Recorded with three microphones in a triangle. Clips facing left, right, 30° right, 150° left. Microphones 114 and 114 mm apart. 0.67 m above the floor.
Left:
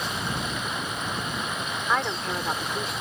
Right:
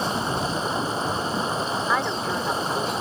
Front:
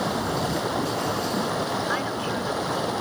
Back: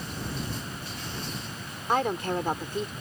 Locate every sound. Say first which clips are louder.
0.0 s running water: right 5 dB, front 11 dB; 35° right
1.9 s a woman speaking: left 1 dB, even; 175° right